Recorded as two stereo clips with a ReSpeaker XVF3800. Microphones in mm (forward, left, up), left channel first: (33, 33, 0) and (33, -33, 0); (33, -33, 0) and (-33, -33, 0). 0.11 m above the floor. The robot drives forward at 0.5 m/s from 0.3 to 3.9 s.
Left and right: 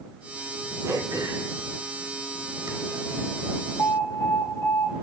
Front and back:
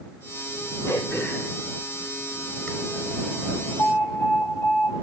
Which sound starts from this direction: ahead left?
An alarm, at 3.8 s.